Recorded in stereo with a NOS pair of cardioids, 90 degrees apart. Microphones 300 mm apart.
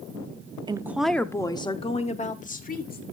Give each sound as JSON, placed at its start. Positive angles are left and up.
{"t": 0.7, "sound": "a woman speaking", "azimuth_deg": -15, "distance_m": 0.6}